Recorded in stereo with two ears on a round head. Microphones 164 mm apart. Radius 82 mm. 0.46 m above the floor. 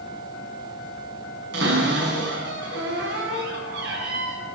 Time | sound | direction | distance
1.5 | a cupboard door | 65° right (ahead or behind) | 5 m